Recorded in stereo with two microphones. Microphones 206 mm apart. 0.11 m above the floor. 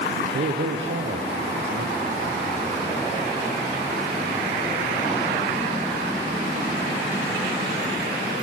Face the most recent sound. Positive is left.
turn(degrees=-70)  # may be behind; listen again after turning